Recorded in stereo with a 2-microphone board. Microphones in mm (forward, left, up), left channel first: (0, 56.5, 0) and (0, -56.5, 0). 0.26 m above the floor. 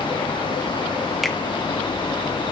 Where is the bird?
No bird in this recording.